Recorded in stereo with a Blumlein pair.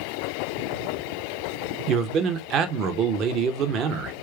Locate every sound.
1.9 s a man speaking: 35° right, 0.6 m